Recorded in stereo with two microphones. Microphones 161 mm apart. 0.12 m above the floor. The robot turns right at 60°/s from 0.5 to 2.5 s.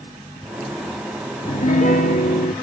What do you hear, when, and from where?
1.4 s a piano: 50° left, 1.1 m; by 2.5 s 110° left, 1.1 m